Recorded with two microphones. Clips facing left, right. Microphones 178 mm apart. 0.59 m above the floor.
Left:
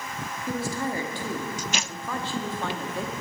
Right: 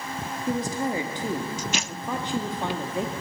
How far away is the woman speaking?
About 0.8 m.